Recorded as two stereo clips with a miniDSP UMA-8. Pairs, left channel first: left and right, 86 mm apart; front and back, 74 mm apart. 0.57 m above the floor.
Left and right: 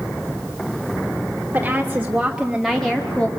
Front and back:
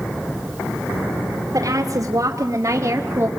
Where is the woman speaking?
160° right, 1.9 m; by 3.3 s 155° left, 1.2 m.